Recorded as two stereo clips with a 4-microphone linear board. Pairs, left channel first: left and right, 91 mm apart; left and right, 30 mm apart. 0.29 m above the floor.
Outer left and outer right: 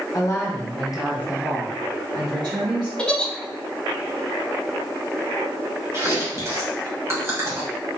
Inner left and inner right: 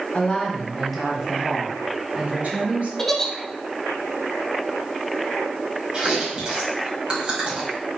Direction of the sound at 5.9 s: 35° right (ahead or behind).